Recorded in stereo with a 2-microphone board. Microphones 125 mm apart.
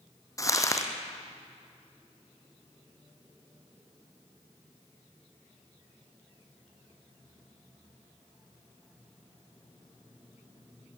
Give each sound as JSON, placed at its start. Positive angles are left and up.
{"t": 0.4, "sound": "crumpling", "side_deg": 25, "distance_m": 2.5}